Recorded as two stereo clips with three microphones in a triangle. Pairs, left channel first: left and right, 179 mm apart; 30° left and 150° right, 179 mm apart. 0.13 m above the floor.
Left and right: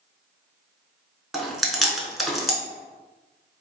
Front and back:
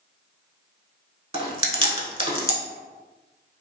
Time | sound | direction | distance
1.3 | chewing | 175° right | 0.6 m